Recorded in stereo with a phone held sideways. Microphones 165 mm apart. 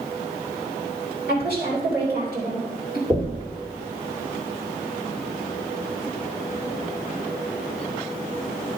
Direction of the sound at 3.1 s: 20° right (ahead or behind).